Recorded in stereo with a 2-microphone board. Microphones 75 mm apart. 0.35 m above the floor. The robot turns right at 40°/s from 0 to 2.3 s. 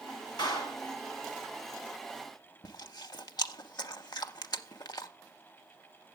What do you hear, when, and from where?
0.4 s a clap: 70° left (ahead or behind), 3 m; by 0.8 s 65° left (ahead or behind), 3 m
2.6 s chewing: 65° left (ahead or behind), 0.6 m